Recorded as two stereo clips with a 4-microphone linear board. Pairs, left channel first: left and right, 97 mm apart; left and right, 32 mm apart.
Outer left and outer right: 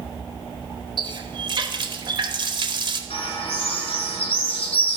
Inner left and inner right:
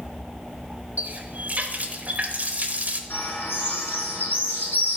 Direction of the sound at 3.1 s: 85° left.